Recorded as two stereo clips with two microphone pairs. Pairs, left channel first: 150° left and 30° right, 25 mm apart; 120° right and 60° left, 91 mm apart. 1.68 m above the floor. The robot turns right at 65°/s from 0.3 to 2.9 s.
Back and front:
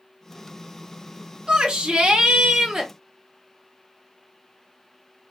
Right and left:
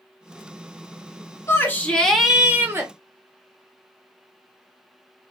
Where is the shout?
75° right, 0.7 m; by 2.9 s 20° left, 0.7 m.